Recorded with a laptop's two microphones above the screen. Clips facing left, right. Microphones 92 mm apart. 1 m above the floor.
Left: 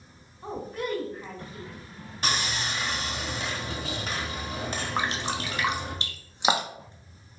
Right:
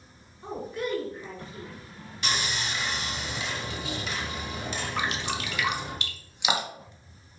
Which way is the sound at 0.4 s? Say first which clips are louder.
Even; 45° left (ahead or behind).